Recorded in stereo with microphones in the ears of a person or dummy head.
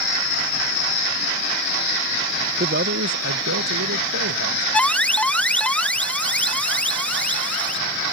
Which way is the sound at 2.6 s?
45° right (ahead or behind).